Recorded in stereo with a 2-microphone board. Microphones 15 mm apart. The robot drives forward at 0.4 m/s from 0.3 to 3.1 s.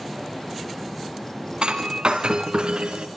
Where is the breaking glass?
85° right, 3.5 m; by 3.1 s 80° right, 3.5 m.